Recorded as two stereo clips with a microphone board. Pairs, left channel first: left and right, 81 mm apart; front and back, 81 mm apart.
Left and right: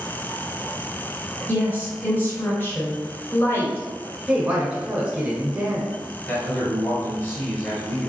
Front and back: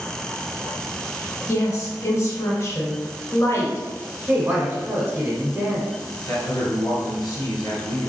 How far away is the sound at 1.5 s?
About 1.4 m.